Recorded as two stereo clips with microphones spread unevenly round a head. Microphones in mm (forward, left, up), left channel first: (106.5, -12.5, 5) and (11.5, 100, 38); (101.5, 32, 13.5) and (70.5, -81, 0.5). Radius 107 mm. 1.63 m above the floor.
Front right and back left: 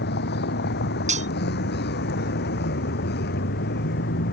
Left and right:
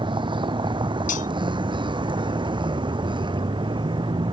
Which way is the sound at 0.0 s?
60° right.